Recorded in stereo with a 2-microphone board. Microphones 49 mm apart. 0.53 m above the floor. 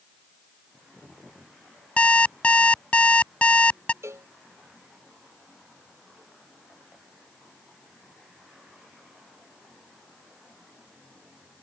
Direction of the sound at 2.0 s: 30° left (ahead or behind).